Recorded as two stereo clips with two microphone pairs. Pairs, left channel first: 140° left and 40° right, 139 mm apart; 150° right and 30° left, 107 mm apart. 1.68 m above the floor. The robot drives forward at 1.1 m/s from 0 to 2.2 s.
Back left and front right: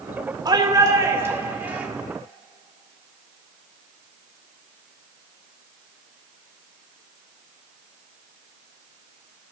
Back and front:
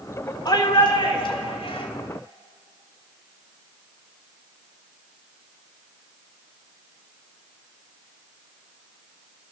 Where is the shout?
100° right, 3.5 m; by 1.9 s 120° right, 4 m.